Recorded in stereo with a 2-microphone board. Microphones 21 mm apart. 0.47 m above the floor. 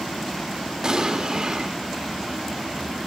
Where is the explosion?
35° right (ahead or behind), 0.8 m.